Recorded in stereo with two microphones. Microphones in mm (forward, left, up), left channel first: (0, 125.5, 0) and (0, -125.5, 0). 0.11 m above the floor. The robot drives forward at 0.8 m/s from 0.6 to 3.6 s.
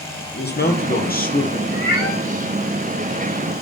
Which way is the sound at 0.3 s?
40° left (ahead or behind).